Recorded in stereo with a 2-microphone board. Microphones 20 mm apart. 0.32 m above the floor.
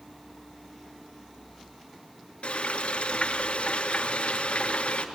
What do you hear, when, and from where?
2.4 s frying: 80° left, 3 m